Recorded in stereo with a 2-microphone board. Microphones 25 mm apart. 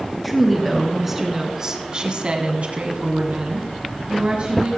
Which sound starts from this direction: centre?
A woman speaking, at 0.2 s.